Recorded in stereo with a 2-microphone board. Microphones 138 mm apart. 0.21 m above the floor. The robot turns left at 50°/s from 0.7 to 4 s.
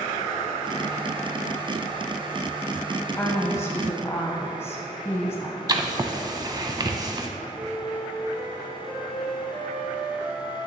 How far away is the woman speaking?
About 1.0 m.